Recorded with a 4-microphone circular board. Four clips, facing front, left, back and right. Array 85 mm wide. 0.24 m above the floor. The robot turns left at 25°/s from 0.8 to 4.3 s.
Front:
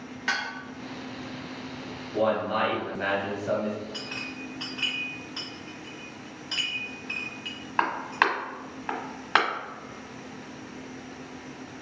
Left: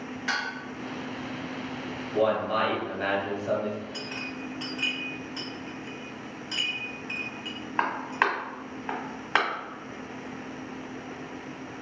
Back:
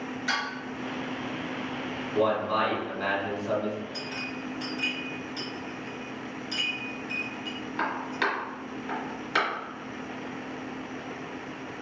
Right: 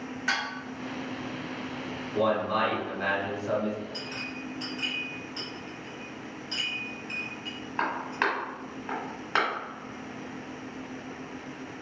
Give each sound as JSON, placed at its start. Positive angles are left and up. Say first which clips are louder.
{"t": 0.3, "sound": "dishes clattering", "louder": "even, front 1 dB", "azimuth_deg": -15, "distance_m": 1.3}
{"t": 2.1, "sound": "a man speaking", "louder": "left 1 dB, even", "azimuth_deg": 45, "distance_m": 1.7}
{"t": 3.9, "sound": "a clink", "louder": "left 1 dB, back 2 dB", "azimuth_deg": 25, "distance_m": 1.3}